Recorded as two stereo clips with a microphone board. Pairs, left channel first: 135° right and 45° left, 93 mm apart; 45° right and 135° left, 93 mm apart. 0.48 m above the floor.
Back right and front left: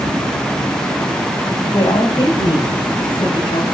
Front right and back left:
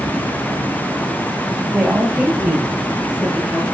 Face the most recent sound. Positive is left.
turn(degrees=-145)